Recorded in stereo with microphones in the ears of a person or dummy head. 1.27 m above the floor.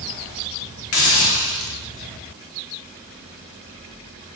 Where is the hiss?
65° left (ahead or behind), 1.3 m.